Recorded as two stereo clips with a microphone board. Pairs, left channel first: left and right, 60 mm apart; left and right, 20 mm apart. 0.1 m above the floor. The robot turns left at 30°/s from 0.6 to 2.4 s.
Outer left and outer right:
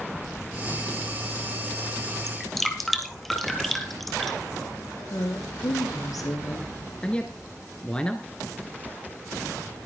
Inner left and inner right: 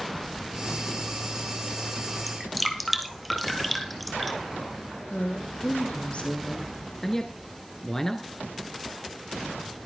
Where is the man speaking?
15° left (ahead or behind), 1.3 m.